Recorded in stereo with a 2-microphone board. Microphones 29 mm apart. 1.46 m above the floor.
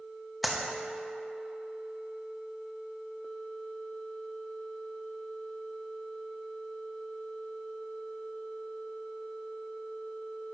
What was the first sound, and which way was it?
A clap, centre (ahead or behind).